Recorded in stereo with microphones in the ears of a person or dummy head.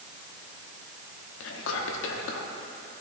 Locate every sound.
1.4 s whispering: 80° left, 1.0 m